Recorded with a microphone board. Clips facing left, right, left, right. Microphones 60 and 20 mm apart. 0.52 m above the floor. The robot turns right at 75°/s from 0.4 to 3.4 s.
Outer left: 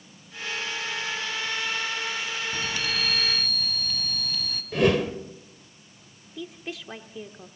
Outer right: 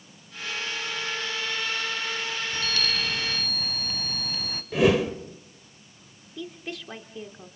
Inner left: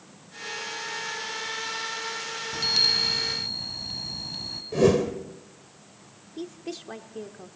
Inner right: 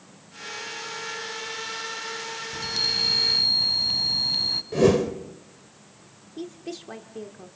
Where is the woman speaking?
5° left (ahead or behind), 1.0 m.